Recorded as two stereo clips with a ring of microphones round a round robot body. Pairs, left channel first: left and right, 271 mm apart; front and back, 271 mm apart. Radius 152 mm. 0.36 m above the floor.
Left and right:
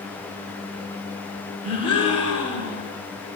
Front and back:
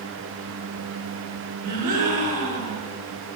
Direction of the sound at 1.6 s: 115° left.